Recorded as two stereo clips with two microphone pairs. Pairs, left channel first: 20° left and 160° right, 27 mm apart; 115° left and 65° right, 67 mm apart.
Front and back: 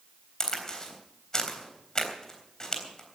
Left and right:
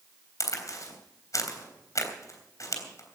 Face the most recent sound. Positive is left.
turn(degrees=85)